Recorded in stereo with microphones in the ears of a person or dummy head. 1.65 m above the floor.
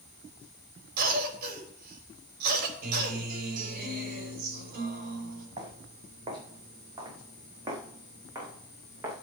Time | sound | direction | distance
1.0 | a cough | 55° right (ahead or behind) | 4 m
2.8 | a guitar | 50° right (ahead or behind) | 4 m
5.6 | footsteps | 30° right (ahead or behind) | 4.5 m